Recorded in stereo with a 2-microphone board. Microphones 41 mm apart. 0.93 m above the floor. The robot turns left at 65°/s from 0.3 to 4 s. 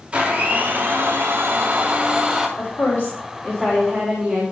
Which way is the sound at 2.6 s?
65° left.